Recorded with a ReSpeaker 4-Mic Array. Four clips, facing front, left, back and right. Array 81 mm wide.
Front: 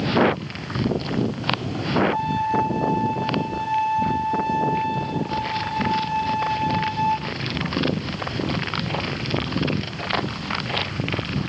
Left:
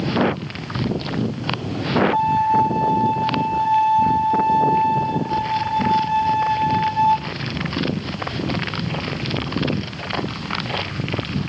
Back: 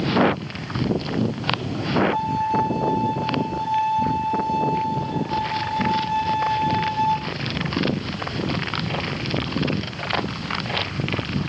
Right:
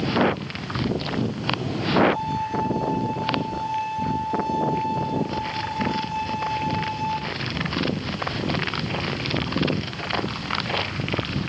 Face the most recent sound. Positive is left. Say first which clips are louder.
# left 9 dB, even
turn(degrees=95)